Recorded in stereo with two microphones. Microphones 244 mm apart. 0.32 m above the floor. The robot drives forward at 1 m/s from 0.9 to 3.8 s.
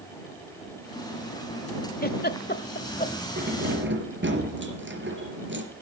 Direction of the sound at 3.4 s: 40° right (ahead or behind).